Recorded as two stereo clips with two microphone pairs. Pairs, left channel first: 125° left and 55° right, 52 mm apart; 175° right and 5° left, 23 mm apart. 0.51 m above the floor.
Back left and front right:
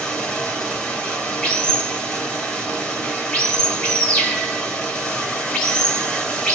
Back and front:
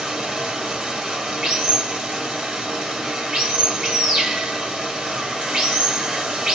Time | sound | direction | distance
0.0 | running water | 55° left | 1.9 m